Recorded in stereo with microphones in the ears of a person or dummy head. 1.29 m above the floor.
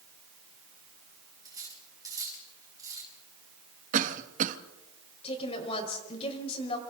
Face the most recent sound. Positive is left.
turn(degrees=35)  # may be behind; listen again after turning